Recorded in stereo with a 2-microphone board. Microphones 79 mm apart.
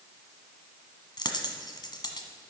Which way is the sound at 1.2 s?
60° left (ahead or behind).